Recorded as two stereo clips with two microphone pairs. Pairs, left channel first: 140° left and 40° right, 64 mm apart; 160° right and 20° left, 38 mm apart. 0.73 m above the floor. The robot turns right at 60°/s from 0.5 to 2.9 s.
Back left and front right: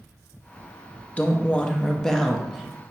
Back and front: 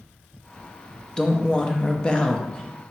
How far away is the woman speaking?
About 0.5 m.